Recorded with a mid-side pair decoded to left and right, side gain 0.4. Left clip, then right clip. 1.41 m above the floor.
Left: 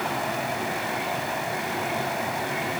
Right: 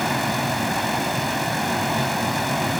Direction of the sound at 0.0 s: 65° right.